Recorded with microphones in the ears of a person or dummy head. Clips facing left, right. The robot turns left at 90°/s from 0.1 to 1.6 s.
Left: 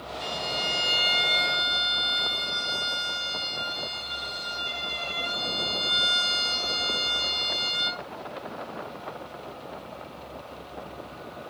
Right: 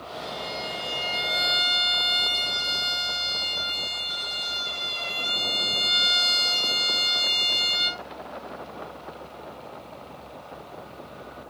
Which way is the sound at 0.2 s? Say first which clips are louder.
Left 1 dB; 95° left.